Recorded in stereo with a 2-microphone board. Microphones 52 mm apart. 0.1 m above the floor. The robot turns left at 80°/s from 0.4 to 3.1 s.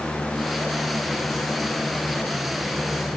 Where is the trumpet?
No trumpet in this recording.